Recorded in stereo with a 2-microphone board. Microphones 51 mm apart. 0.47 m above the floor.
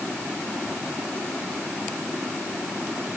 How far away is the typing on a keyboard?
No typing on a keyboard in this recording.